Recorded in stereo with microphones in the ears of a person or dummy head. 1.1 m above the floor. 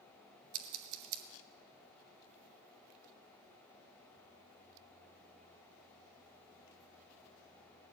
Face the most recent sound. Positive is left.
turn(degrees=-75)  # may be behind; listen again after turning